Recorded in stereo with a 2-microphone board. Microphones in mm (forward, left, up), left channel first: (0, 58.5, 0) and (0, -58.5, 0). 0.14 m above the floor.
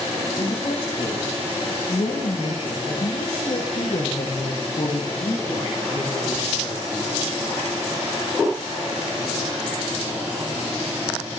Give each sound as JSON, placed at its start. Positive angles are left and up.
{"t": 0.4, "sound": "a woman speaking", "side_deg": 70, "distance_m": 8.5}